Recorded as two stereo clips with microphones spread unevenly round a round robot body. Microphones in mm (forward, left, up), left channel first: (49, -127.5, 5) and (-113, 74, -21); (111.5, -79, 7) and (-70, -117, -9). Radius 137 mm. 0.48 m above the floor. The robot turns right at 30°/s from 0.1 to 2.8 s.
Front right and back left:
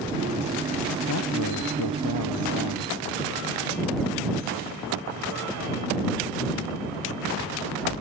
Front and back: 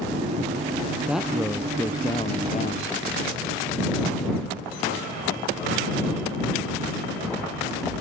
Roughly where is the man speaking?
Right.